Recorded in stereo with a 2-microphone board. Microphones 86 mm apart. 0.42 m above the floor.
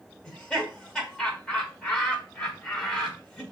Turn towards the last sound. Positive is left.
turn(degrees=10)  # may be behind; listen again after turning